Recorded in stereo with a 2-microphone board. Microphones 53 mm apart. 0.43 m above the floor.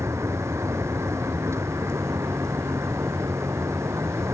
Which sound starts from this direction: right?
A vehicle, at 0.0 s.